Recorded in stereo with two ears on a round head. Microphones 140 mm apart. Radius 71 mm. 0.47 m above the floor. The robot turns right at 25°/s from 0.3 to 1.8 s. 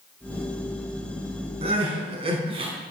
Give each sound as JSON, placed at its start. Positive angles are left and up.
{"t": 1.6, "sound": "crying", "side_deg": -40, "distance_m": 4.5}